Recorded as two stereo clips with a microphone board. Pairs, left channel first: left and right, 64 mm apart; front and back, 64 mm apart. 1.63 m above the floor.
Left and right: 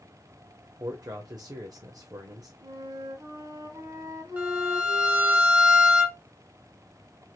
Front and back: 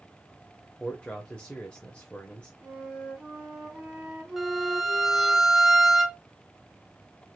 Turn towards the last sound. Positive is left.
turn(degrees=-100)